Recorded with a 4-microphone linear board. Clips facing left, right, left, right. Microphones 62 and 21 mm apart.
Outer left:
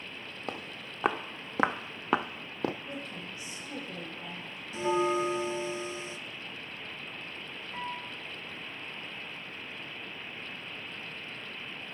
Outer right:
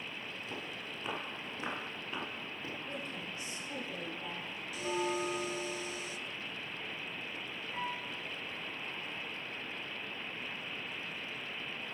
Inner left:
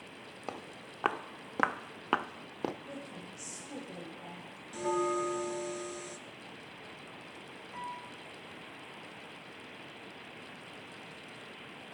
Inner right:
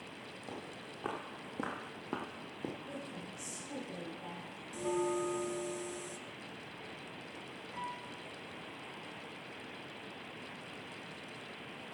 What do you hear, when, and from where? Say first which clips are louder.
0.5 s footsteps: outer left 6 dB, inner left 4 dB; 70° left (ahead or behind), 1.5 m; by 2.7 s 65° left (ahead or behind), 0.6 m
2.8 s a woman speaking: outer left 1 dB, even; 20° left (ahead or behind), 4.5 m
4.7 s a bell: outer left 7 dB, inner left 3 dB; 35° left (ahead or behind), 0.6 m
7.7 s a piano: outer left 1 dB, inner left 1 dB; centre (ahead or behind), 0.9 m